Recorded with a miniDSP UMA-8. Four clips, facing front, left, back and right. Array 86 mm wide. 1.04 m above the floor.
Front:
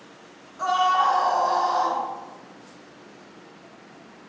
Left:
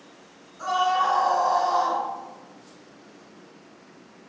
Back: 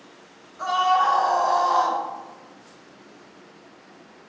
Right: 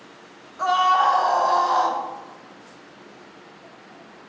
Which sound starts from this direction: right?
A scream, at 0.6 s.